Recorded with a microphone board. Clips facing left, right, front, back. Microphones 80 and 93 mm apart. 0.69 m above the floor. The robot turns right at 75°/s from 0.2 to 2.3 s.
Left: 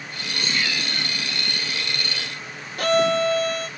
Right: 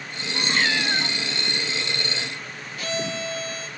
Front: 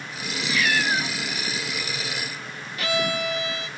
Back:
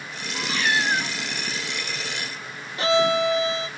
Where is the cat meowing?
145° right, 1.1 m; by 1.1 s 90° right, 1.1 m.